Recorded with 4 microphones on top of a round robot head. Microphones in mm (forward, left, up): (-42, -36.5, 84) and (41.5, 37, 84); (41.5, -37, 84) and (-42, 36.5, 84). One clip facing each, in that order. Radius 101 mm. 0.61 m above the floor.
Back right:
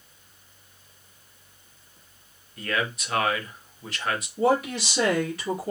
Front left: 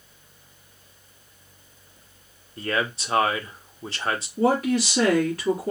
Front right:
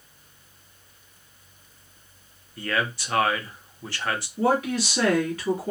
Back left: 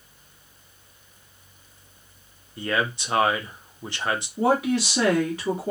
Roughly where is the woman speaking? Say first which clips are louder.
Front left 2 dB, back left 1 dB; left.